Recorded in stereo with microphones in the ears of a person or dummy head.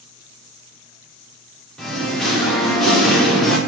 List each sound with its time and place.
1.8 s singing: 5° left (ahead or behind), 0.8 m